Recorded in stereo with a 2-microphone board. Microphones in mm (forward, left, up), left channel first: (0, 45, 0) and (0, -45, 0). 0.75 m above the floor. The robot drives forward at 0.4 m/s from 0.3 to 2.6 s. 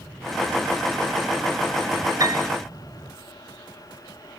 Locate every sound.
2.2 s a piano: 40° right (ahead or behind), 0.7 m